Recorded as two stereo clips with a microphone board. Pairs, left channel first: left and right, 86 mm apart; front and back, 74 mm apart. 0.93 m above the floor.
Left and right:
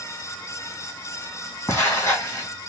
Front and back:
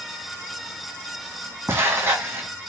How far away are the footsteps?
About 1.6 m.